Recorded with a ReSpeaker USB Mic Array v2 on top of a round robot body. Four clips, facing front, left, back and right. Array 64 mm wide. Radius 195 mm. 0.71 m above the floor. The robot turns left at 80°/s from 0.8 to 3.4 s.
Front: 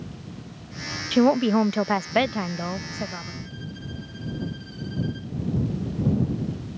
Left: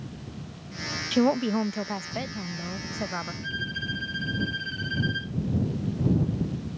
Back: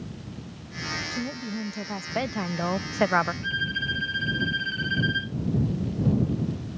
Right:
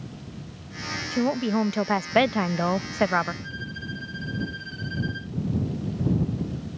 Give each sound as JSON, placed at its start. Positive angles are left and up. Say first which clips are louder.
{"t": 1.1, "sound": "a woman speaking", "louder": "left 1 dB, front 14 dB", "azimuth_deg": 25}
{"t": 3.4, "sound": "a violin", "louder": "left 3 dB, back 10 dB", "azimuth_deg": 165}